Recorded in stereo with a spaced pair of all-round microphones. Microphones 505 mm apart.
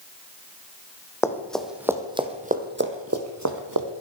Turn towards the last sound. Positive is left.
turn(degrees=-45)  # may be behind; listen again after turning